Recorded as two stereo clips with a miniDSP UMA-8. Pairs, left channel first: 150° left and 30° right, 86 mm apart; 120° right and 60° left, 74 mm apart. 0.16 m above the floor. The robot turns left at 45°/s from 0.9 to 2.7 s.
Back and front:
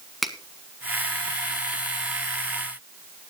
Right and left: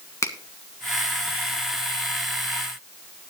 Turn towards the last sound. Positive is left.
turn(degrees=160)